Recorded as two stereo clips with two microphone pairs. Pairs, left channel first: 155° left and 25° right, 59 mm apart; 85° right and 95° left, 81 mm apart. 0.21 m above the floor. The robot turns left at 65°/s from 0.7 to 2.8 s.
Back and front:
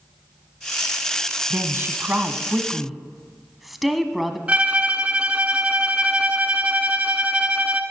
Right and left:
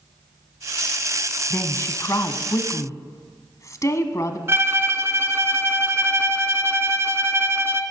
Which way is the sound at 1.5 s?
25° right.